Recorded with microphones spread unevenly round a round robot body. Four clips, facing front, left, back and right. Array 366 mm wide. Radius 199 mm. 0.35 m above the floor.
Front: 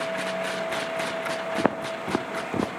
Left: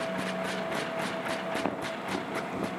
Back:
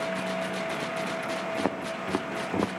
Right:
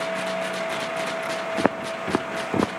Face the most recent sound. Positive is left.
turn(degrees=-75)